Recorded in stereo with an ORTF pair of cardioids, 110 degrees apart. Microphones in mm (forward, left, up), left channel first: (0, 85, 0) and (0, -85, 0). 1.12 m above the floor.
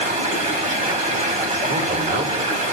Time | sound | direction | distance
0.0 | running water | 45° right | 2 m
1.7 | a man speaking | 65° right | 2.5 m